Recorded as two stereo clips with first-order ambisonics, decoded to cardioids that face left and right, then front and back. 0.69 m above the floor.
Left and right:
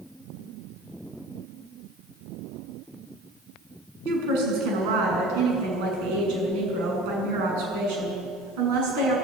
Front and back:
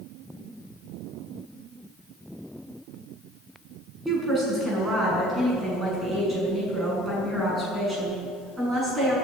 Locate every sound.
4.0 s a woman speaking: 100° right, 6.5 m